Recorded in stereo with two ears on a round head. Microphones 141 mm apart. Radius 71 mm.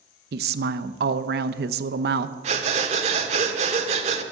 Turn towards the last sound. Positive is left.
turn(degrees=-45)  # may be behind; listen again after turning